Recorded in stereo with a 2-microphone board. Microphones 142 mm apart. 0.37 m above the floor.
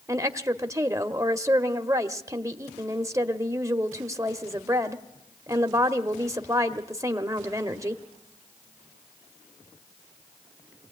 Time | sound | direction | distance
0.1 | a woman speaking | 20° right (ahead or behind) | 1.0 m